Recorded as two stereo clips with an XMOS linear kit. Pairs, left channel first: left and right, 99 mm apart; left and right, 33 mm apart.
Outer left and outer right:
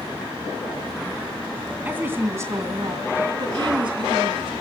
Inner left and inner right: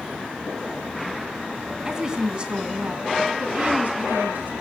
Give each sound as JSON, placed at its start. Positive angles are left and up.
{"t": 1.9, "sound": "a woman speaking", "side_deg": -15, "distance_m": 2.5}